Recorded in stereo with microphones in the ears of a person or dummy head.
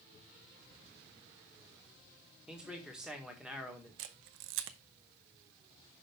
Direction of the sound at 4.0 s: 70° right (ahead or behind).